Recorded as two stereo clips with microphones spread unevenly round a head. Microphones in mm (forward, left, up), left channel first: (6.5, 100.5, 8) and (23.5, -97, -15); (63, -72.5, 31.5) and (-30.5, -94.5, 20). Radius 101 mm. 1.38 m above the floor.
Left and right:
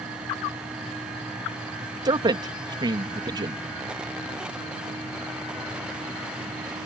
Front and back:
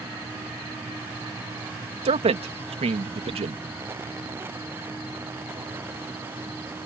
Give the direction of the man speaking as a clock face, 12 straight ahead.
5 o'clock.